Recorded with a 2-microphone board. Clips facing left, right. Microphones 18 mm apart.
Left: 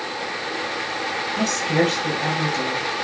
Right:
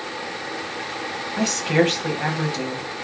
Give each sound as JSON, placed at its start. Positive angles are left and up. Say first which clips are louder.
{"t": 1.4, "sound": "a woman speaking", "louder": "right 2 dB", "side_deg": -20, "distance_m": 1.2}